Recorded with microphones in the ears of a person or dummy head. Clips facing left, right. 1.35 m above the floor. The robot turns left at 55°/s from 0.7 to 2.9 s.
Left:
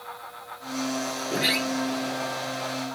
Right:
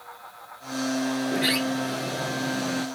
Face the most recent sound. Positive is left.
turn(degrees=-80)